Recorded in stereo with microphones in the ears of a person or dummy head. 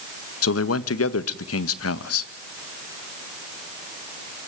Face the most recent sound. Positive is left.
turn(degrees=80)